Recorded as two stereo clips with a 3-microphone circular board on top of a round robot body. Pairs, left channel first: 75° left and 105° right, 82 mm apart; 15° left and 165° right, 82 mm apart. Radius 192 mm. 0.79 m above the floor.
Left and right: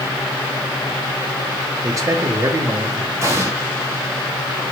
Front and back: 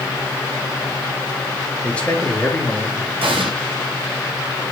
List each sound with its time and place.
1.8 s a man speaking: 60° right, 2 m
3.2 s an explosion: 165° right, 1.1 m